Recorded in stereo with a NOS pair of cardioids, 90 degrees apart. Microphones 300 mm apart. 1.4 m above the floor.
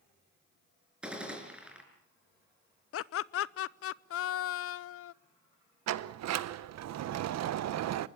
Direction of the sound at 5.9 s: 65° right.